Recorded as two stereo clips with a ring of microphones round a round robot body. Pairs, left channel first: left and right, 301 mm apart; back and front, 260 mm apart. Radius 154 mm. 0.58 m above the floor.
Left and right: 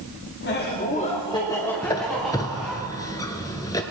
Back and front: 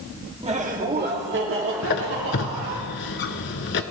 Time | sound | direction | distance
0.4 | laughter | 55° left | 1.4 m
1.8 | a squeak | 165° left | 0.6 m